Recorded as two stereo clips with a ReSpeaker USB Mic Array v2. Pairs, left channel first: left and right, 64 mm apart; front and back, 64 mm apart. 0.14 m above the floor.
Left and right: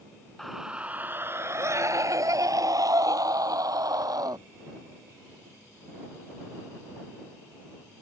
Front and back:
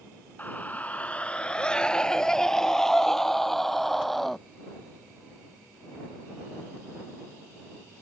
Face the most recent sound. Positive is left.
turn(degrees=-90)